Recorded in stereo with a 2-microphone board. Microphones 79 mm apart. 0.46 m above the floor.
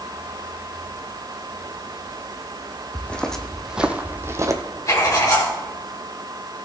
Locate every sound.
3.0 s footsteps: 15° left (ahead or behind), 1.3 m; by 4.6 s 45° right (ahead or behind), 1.1 m
4.9 s writing: 50° left (ahead or behind), 4.5 m